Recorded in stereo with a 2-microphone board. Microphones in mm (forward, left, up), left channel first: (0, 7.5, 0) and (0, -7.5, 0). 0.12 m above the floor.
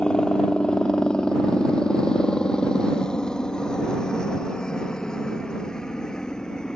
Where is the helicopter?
65° left (ahead or behind); by 6.8 s 50° left (ahead or behind).